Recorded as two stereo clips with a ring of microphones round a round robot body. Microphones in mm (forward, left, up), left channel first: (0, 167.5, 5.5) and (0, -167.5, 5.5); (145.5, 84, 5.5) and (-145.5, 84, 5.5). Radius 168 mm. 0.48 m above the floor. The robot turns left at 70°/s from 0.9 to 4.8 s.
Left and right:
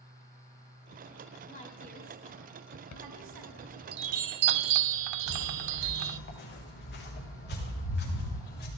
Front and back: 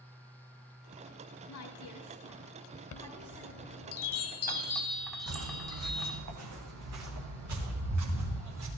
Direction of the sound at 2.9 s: 45° left.